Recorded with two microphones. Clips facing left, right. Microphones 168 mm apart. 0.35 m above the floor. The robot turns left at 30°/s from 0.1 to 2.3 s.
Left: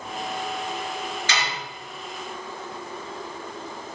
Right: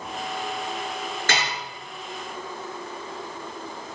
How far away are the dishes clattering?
About 3.5 m.